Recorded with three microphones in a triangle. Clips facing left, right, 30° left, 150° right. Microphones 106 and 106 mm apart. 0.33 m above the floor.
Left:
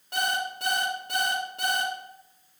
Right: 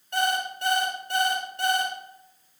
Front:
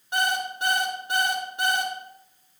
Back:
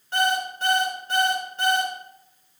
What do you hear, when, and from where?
0.1 s an alarm clock: 110° left, 2.5 m